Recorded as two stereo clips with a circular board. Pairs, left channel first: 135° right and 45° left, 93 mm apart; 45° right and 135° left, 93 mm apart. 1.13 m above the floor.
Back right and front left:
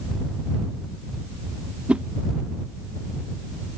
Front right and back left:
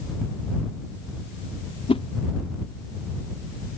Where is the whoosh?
35° right.